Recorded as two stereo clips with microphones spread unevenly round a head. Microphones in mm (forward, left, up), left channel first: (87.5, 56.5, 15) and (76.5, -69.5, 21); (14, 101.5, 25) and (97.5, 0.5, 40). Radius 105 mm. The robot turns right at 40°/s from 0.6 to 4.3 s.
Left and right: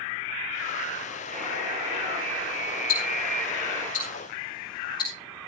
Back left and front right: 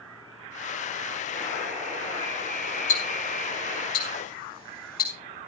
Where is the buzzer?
155° right, 10 m; by 3.9 s 55° right, 10 m.